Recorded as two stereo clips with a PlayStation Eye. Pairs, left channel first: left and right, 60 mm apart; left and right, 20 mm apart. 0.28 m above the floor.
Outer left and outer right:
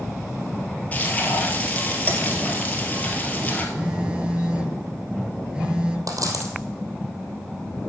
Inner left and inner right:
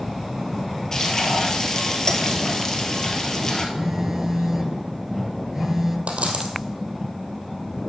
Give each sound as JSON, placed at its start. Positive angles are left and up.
{"t": 0.9, "sound": "frying", "side_deg": 25, "distance_m": 1.7}
{"t": 3.8, "sound": "a phone buzzing", "side_deg": -20, "distance_m": 1.1}
{"t": 6.1, "sound": "a dropped coin", "side_deg": -85, "distance_m": 2.5}